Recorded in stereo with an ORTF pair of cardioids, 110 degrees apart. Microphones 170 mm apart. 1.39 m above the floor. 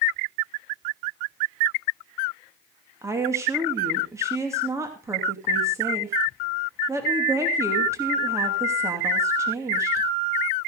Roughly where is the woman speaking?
Ahead.